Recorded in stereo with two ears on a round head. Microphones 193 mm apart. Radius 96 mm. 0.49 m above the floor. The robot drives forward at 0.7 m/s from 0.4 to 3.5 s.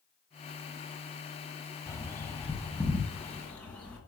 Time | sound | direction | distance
1.9 | a bird | 15° left (ahead or behind) | 1.1 m